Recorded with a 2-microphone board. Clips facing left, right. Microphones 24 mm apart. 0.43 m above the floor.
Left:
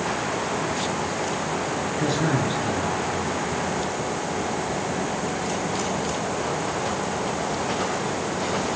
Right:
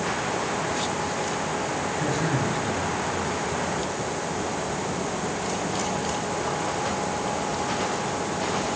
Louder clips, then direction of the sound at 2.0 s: Left 4 dB; 60° left (ahead or behind).